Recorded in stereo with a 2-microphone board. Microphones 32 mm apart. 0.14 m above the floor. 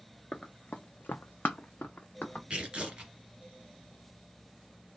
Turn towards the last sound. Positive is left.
turn(degrees=-30)  # may be behind; listen again after turning